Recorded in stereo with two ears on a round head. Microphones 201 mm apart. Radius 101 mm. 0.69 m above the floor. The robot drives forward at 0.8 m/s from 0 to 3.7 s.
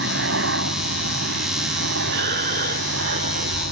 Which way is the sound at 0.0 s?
55° right (ahead or behind).